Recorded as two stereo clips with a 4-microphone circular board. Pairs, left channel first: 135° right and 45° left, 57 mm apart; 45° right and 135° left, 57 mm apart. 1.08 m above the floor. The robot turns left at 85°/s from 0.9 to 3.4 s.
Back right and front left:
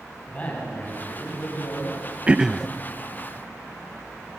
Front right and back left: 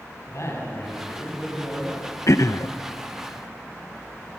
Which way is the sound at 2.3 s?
20° right.